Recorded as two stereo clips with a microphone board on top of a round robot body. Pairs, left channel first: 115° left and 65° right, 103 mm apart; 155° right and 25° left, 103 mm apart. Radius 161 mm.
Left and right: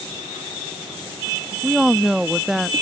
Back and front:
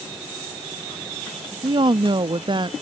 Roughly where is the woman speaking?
Ahead.